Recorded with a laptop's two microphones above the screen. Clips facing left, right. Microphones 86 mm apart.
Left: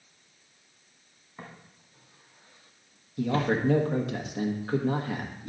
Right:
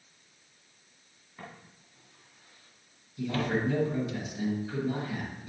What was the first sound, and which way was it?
Footsteps, 20° left (ahead or behind).